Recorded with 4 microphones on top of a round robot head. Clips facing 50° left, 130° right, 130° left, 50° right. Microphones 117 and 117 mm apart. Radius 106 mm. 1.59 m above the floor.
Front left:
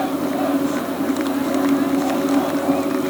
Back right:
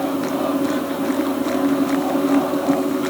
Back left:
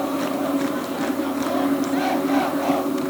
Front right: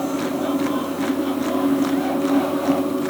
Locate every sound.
Only background noise.